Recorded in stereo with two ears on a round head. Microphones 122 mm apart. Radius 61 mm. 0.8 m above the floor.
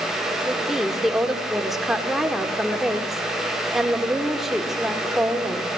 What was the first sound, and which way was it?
A woman speaking, centre (ahead or behind).